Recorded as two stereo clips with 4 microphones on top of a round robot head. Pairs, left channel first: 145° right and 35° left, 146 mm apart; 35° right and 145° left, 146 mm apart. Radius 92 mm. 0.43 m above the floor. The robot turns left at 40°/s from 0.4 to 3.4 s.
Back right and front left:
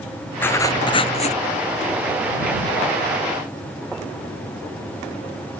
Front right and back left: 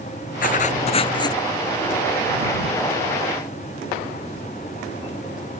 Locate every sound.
0.4 s writing: 65° right; by 1.4 s 105° right